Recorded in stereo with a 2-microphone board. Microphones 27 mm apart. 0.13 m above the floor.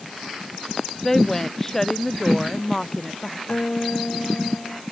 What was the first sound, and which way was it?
A woman speaking, 15° left (ahead or behind).